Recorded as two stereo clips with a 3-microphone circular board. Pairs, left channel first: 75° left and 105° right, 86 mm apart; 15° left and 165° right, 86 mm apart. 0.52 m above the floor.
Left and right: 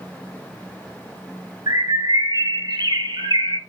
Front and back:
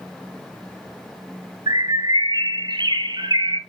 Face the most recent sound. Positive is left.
turn(degrees=-135)